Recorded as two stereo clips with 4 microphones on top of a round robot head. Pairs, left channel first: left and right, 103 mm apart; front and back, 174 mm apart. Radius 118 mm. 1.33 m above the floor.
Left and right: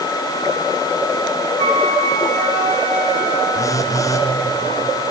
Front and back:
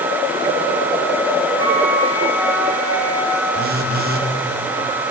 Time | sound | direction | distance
1.6 | a flute | 110° right | 3.5 m
3.5 | a phone buzzing | 150° left | 2 m